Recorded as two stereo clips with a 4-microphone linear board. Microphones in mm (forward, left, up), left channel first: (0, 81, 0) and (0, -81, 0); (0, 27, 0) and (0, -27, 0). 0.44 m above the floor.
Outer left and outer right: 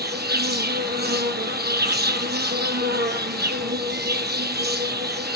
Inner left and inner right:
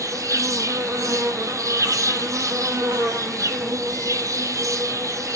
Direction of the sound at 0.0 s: 70° right (ahead or behind).